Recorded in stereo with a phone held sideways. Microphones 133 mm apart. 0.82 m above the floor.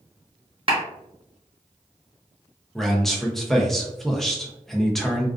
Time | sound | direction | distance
0.7 | a clap | 45° right (ahead or behind) | 0.9 m
2.8 | a man speaking | centre (ahead or behind) | 0.5 m